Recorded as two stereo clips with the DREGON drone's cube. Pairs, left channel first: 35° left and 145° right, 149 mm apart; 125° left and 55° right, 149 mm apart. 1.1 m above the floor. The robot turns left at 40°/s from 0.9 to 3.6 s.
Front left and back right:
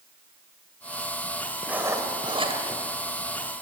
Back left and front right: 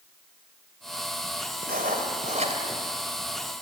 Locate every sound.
1.6 s writing: 65° right, 2.5 m; by 2.6 s 100° right, 2.5 m